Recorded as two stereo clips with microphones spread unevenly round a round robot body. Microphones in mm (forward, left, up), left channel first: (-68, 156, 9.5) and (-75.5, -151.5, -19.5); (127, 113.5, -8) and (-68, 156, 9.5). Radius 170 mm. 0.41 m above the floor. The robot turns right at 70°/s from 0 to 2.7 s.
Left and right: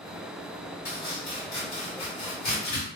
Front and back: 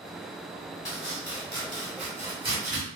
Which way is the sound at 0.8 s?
Straight ahead.